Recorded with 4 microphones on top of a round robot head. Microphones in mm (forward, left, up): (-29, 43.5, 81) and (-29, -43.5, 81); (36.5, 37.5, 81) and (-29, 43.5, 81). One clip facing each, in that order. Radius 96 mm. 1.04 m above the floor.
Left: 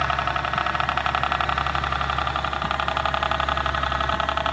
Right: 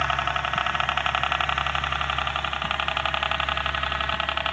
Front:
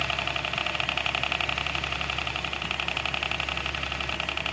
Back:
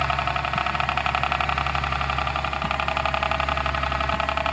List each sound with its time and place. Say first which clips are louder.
0.0 s a helicopter: left 2 dB, back 7 dB; 170° left; by 4.5 s 150° left